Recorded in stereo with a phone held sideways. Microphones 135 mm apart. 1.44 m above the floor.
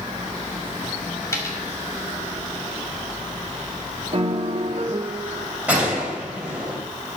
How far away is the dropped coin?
About 2 m.